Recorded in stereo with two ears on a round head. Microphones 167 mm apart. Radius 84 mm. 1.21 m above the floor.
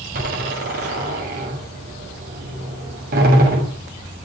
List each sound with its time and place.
0.1 s a door slam: 55° right (ahead or behind), 6.5 m